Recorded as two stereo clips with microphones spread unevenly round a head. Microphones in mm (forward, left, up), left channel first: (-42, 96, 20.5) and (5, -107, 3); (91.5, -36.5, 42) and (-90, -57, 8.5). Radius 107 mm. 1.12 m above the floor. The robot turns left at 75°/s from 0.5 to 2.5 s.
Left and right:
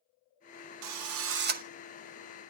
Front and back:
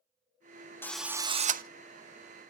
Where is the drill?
70° right, 0.8 m; by 1.6 s 130° right, 0.8 m.